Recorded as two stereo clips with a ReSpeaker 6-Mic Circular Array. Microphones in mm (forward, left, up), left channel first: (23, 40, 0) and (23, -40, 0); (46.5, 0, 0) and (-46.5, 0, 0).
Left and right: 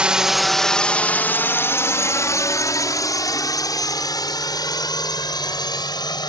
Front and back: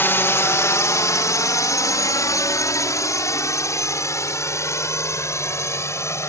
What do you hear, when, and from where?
0.0 s a drone: 30° right; by 6.3 s 60° left